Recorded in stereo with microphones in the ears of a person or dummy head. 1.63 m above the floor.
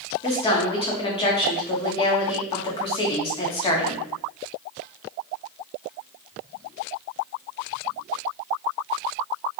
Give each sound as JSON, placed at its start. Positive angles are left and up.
{"t": 0.2, "sound": "a woman speaking", "side_deg": 30, "distance_m": 1.0}